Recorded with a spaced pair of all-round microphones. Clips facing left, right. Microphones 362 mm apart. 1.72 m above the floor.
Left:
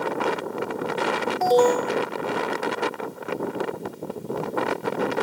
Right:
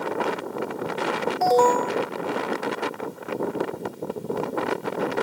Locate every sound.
1.4 s an alarm: 45° left (ahead or behind)